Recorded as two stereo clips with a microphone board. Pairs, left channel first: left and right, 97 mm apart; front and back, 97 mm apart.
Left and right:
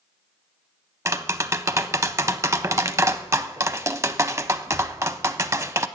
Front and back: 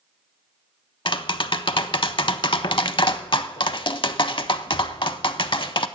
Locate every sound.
1.1 s tapping: 30° right, 0.5 m